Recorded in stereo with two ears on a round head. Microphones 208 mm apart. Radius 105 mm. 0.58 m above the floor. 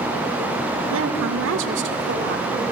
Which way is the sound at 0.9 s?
60° right (ahead or behind).